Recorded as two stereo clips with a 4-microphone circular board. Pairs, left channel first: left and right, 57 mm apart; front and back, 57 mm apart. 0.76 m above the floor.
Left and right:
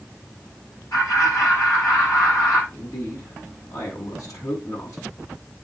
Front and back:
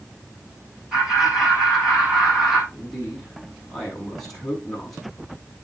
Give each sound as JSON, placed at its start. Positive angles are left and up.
{"t": 0.9, "sound": "laughter", "azimuth_deg": 100, "distance_m": 7.5}
{"t": 2.7, "sound": "a man speaking", "azimuth_deg": 85, "distance_m": 7.5}